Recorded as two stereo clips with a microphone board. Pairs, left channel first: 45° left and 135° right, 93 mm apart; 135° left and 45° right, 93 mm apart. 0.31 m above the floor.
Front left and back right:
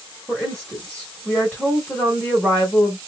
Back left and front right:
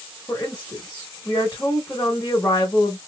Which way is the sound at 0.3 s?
105° left.